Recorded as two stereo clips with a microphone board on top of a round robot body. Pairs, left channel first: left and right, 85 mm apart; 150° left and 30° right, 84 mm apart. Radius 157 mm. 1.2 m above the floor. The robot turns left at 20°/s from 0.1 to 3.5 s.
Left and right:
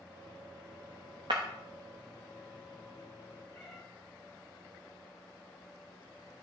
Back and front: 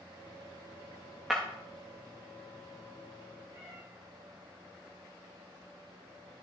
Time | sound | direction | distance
1.3 | breaking glass | 120° right | 0.6 m
3.5 | a cat meowing | 30° left | 0.6 m